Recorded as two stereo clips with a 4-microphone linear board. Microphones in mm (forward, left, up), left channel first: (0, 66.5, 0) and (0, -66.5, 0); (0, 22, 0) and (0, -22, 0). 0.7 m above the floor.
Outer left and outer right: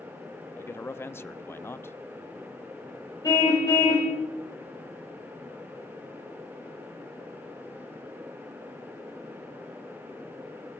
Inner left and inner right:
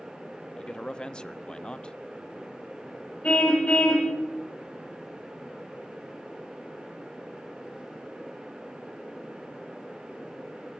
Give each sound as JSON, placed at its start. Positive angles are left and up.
{"t": 0.6, "sound": "a man speaking", "side_deg": 20, "distance_m": 0.5}
{"t": 3.2, "sound": "a car horn", "side_deg": 30, "distance_m": 2.5}